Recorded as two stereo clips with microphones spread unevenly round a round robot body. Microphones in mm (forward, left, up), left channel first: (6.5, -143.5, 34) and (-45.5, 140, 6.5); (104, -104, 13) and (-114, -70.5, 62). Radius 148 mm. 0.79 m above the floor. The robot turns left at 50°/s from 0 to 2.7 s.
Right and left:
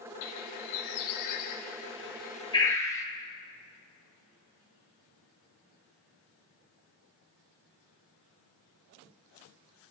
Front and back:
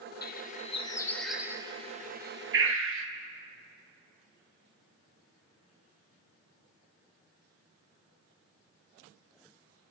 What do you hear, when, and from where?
0.2 s a bird: 40° right, 2 m; by 3.1 s 165° right, 2 m